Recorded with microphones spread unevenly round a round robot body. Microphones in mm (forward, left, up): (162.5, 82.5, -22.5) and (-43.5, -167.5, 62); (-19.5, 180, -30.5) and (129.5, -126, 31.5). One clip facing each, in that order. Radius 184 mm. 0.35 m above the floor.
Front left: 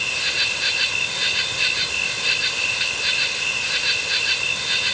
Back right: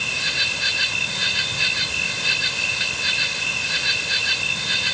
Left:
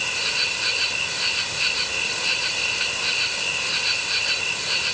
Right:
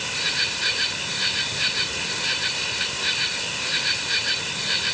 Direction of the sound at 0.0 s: 130° right.